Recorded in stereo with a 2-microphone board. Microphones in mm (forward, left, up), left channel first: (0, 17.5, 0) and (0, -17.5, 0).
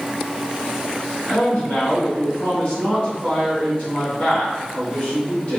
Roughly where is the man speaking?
Left.